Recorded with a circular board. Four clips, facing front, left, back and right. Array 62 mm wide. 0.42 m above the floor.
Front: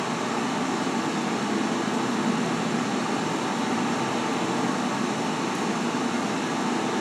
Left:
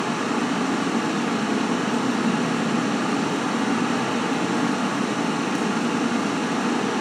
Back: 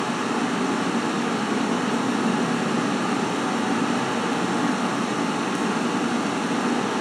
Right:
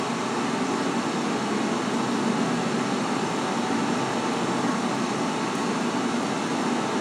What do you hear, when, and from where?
0.0 s running water: 130° left, 2 m